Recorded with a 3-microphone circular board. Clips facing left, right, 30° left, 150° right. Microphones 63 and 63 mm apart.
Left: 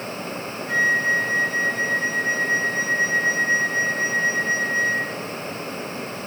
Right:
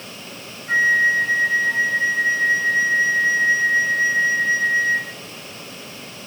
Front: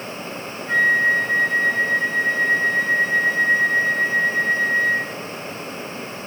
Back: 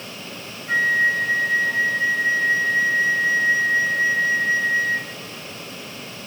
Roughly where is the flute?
Right.